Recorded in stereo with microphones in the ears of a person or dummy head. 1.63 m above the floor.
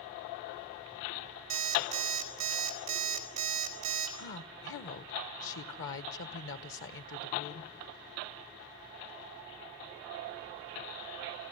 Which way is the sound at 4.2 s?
70° left (ahead or behind).